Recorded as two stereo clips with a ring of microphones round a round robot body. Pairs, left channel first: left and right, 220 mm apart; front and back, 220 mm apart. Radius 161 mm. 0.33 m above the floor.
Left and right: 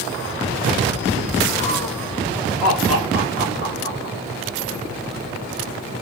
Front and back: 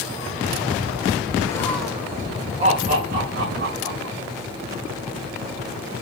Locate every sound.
1.5 s laughter: 45° left, 0.9 m; by 4.2 s 170° right, 1.6 m